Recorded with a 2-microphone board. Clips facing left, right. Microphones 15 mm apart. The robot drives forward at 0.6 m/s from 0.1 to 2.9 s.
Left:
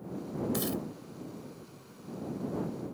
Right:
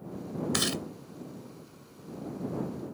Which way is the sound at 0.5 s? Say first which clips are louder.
Right 7 dB; 45° right (ahead or behind).